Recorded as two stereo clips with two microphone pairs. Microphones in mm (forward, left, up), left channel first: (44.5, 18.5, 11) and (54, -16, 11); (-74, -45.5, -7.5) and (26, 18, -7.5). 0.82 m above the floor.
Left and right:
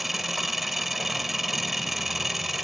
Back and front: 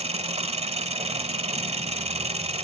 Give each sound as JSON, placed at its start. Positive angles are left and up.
{"t": 0.0, "sound": "an engine running", "azimuth_deg": 10, "distance_m": 1.3}